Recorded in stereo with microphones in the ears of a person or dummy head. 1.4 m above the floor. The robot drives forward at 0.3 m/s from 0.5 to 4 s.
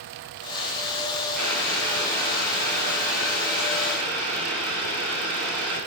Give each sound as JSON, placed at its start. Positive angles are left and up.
{"t": 1.4, "sound": "boiling", "side_deg": 10, "distance_m": 9.0}